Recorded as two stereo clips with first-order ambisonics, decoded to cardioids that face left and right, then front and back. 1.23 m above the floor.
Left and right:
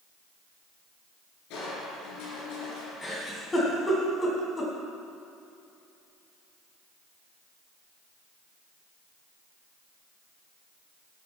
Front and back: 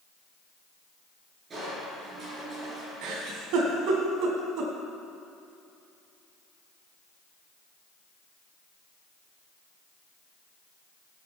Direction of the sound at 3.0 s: 165° left.